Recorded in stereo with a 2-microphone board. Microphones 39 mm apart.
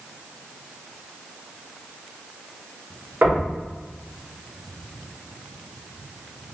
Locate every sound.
3.2 s knocking: 45° right (ahead or behind), 1.0 m